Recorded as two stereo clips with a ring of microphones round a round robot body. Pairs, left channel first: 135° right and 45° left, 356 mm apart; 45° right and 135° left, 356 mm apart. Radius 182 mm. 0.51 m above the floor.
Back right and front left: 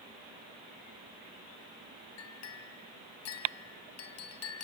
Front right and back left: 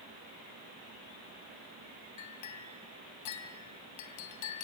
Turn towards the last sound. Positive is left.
turn(degrees=-85)